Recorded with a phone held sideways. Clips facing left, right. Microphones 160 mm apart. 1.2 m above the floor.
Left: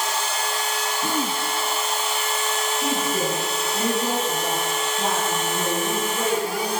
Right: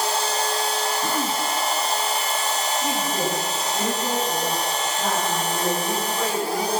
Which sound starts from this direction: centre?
Throat clearing, at 1.0 s.